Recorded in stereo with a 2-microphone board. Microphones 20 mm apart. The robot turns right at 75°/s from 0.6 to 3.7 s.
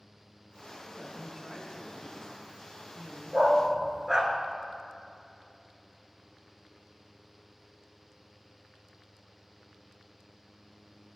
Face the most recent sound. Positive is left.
turn(degrees=-30)  # may be behind; listen again after turning